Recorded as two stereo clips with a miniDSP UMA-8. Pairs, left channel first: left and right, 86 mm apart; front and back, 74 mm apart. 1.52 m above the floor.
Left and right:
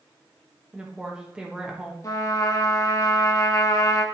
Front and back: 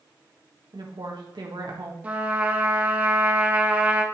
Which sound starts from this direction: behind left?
A trumpet, at 2.0 s.